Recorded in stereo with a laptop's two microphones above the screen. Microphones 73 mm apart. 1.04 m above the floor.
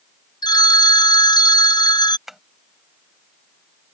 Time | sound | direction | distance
0.4 | a phone ringing | 80° left | ?
2.3 | tapping | 5° right (ahead or behind) | ?